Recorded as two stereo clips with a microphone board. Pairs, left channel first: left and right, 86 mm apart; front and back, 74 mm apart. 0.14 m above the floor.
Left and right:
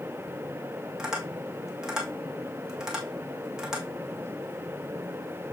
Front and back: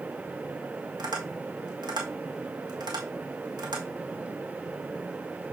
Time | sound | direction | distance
1.0 | tapping | 170° right | 2 m